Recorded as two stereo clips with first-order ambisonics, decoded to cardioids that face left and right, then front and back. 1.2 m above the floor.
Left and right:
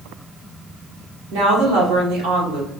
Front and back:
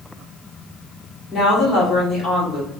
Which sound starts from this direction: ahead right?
A woman speaking, at 1.3 s.